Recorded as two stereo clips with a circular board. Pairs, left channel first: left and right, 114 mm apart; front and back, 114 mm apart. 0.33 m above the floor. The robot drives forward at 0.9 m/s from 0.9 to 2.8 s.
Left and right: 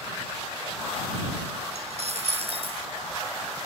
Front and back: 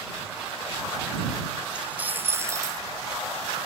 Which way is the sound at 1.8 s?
100° right.